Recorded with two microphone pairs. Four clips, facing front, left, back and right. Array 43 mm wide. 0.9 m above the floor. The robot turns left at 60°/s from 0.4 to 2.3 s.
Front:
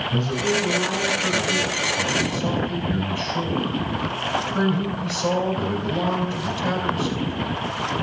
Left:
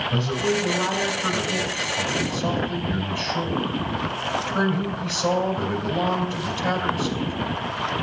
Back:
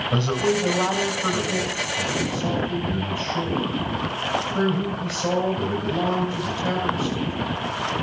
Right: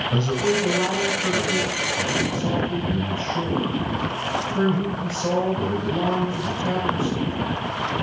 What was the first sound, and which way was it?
A man speaking, 175° right.